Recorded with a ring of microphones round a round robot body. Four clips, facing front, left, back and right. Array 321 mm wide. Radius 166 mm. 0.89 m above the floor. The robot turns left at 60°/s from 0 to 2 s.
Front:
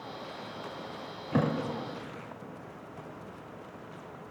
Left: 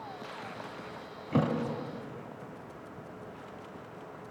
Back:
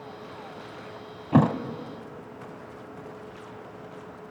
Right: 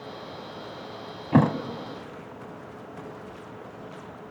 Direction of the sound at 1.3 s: 130° right.